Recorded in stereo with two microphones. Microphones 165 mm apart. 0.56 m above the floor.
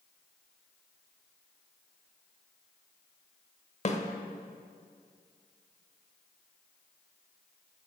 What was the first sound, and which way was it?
A snare drum, 45° left (ahead or behind).